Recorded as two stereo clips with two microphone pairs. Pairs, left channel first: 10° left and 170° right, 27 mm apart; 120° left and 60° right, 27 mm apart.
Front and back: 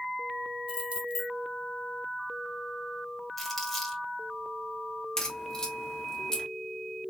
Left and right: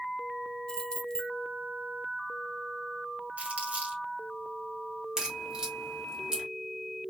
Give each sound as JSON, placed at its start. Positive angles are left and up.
{"t": 0.7, "sound": "keys jangling", "azimuth_deg": 175, "distance_m": 1.0}
{"t": 3.4, "sound": "crumpling", "azimuth_deg": -70, "distance_m": 2.0}
{"t": 5.2, "sound": "a crack", "azimuth_deg": -30, "distance_m": 1.4}